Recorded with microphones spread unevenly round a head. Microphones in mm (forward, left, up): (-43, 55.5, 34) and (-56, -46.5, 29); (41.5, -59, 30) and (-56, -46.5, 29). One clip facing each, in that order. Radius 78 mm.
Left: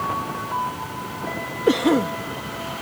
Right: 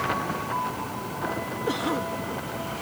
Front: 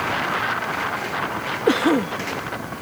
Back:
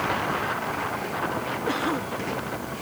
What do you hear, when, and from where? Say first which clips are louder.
1.7 s a cough: left 11 dB, front 11 dB; 35° left